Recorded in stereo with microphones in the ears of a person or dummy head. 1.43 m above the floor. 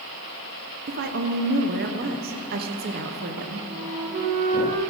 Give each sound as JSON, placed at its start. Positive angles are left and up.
{"t": 0.9, "sound": "a woman speaking", "side_deg": -50, "distance_m": 1.0}
{"t": 3.7, "sound": "a flute", "side_deg": -40, "distance_m": 1.9}